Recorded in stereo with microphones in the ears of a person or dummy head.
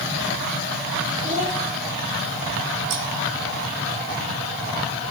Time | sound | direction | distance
1.2 | a child speaking | 35° right (ahead or behind) | 1.6 m
2.9 | scissors | 50° right (ahead or behind) | 0.8 m